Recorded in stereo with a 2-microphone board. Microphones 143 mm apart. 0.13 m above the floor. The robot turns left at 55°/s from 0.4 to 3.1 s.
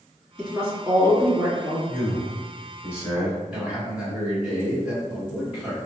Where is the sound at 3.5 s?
10° right (ahead or behind), 1.6 m.